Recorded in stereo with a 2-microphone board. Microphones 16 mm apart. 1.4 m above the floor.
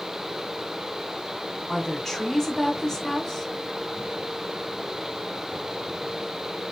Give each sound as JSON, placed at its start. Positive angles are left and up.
{"t": 1.7, "sound": "a woman speaking", "side_deg": 25, "distance_m": 1.8}